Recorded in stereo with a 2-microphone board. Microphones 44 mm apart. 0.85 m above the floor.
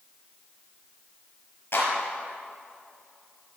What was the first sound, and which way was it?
A clap, 60° left (ahead or behind).